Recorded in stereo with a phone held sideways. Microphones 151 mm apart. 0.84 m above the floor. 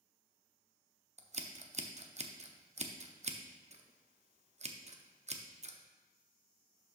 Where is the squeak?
No squeak in this recording.